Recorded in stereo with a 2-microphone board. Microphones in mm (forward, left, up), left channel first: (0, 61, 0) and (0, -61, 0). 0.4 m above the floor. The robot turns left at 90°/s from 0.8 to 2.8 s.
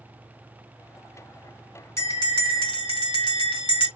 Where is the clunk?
No clunk in this recording.